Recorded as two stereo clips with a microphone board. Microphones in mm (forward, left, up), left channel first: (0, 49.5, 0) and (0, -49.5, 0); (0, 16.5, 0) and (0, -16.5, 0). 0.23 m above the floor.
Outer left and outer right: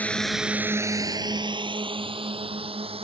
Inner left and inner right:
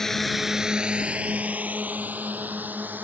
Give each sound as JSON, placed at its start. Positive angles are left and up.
{"t": 0.0, "sound": "a drone", "side_deg": 15}